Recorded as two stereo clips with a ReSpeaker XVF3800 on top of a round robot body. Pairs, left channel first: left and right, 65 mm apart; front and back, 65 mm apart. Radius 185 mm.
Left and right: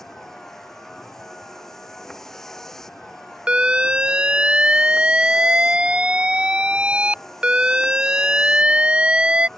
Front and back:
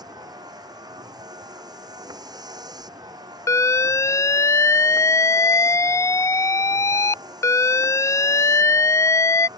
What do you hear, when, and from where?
0.0 s a vehicle: 175° left
3.5 s an alarm: 20° right